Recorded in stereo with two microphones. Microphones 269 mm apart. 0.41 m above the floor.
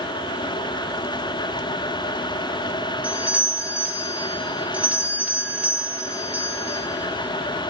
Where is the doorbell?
5° right (ahead or behind), 1.4 m.